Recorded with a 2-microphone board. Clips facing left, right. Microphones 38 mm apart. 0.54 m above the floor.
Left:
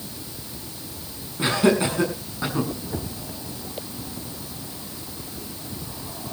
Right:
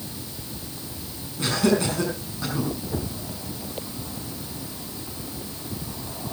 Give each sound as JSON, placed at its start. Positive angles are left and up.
{"t": 1.4, "sound": "laughter", "side_deg": 20, "distance_m": 6.5}